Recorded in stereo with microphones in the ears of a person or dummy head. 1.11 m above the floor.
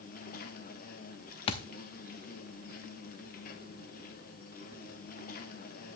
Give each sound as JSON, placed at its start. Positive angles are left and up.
{"t": 0.0, "sound": "an insect", "side_deg": 40, "distance_m": 1.0}
{"t": 1.5, "sound": "a thud", "side_deg": 30, "distance_m": 0.8}